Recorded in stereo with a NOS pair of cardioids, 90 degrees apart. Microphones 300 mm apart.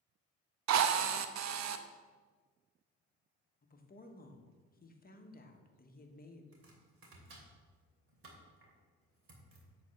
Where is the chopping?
50° right, 2.5 m.